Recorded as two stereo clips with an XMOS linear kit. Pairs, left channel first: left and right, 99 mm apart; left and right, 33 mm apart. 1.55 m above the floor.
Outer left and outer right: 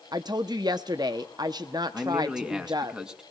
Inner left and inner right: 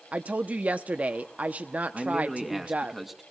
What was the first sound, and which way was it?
A woman speaking, 45° right (ahead or behind).